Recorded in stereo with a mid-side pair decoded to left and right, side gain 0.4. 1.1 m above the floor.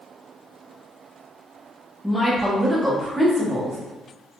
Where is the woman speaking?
5° left, 1.1 m; by 3.8 s 35° right, 1.7 m.